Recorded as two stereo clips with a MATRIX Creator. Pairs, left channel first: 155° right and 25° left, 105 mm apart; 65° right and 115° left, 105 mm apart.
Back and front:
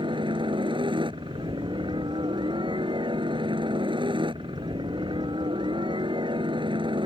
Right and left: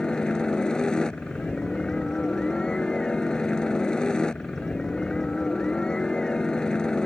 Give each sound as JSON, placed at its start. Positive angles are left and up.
{"t": 0.0, "sound": "a helicopter", "azimuth_deg": 15}